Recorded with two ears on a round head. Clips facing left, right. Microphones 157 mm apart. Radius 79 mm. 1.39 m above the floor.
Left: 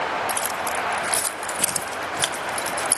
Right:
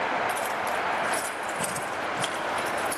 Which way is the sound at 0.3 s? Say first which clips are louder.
Left 1 dB; 50° left (ahead or behind).